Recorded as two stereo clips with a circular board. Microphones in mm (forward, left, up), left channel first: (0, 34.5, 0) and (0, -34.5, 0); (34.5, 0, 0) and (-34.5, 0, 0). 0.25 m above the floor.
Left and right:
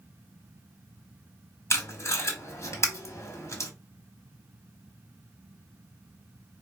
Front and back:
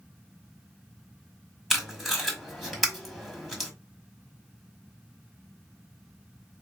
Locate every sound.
1.7 s tape being pulled: 90° left, 1.7 m